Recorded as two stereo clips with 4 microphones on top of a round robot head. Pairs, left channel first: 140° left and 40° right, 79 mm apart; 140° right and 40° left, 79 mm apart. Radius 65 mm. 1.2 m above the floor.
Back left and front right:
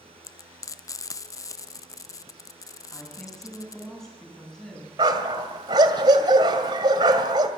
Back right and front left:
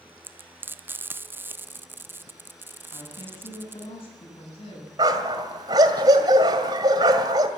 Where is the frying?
100° left, 0.8 m.